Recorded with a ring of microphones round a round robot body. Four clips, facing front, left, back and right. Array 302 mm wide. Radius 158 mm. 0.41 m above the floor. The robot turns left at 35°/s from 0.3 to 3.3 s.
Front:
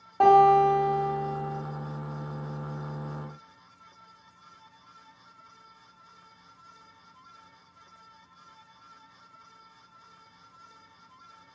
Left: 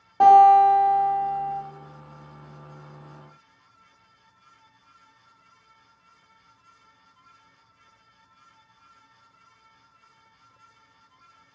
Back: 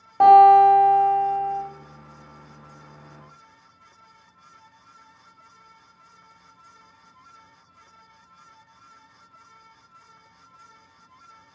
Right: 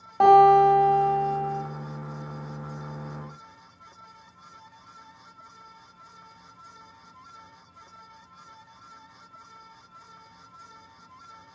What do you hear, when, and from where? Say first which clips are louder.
0.2 s a guitar: left 2 dB, back 7 dB; 130° right, 1.3 m; by 1.6 s straight behind, 1.3 m